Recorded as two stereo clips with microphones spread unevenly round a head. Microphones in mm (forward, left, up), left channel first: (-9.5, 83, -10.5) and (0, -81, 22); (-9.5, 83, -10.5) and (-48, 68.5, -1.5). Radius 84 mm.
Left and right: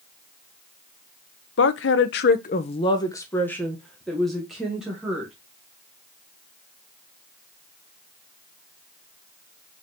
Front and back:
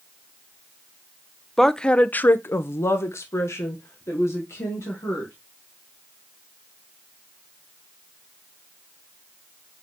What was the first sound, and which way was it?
A woman speaking, 110° left.